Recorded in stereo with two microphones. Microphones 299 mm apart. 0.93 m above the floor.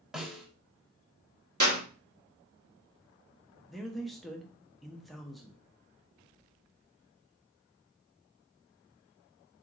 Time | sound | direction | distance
0.1 | a snare drum | centre (ahead or behind) | 1.1 m
1.6 | a clap | 75° right (ahead or behind) | 1.5 m
3.7 | a man speaking | centre (ahead or behind) | 0.7 m